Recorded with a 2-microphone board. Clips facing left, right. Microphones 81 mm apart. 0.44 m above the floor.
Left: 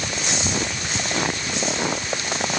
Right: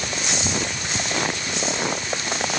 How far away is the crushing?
I don't hear crushing.